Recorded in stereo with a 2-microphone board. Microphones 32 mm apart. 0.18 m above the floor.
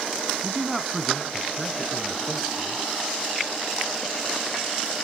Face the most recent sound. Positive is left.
turn(degrees=30)  # may be behind; listen again after turning